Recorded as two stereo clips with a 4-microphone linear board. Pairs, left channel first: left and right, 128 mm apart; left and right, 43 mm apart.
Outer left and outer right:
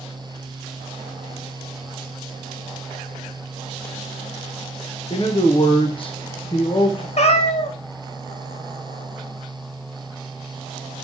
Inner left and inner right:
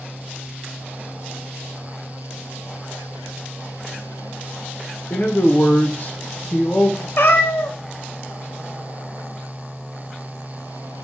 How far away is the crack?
I don't hear a crack.